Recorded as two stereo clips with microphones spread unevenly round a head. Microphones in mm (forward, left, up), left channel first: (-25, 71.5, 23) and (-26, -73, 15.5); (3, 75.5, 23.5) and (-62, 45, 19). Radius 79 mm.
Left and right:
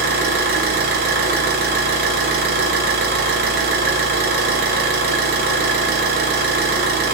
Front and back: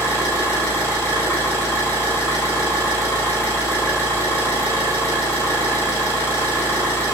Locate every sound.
0.0 s an engine running: 55° right, 0.8 m